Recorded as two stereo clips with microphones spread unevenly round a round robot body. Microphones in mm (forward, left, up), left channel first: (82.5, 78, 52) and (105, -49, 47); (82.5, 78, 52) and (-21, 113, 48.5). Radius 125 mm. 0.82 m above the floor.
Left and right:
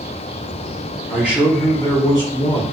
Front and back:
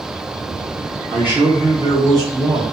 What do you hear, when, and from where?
1.1 s a man speaking: 135° right, 0.9 m; by 2.6 s 115° left, 1.1 m